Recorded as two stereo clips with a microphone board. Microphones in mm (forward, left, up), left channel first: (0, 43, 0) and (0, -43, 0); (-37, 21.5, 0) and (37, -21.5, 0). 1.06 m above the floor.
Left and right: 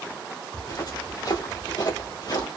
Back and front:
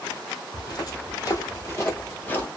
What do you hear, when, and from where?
0.5 s footsteps: 125° left, 2 m; by 2.5 s 85° left, 1.6 m